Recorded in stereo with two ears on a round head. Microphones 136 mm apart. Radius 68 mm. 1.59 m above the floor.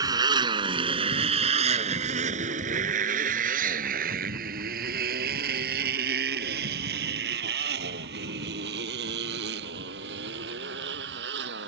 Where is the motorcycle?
25° right (ahead or behind); by 11.7 s 80° right.